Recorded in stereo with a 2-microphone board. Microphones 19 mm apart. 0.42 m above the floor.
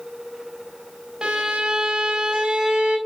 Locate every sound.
1.2 s a violin: 60° right (ahead or behind), 3.5 m